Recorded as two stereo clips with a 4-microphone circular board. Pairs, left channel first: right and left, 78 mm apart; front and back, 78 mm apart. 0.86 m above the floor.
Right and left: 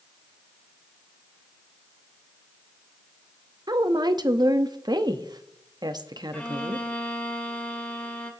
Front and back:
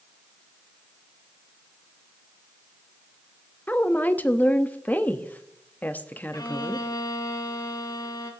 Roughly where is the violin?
Ahead.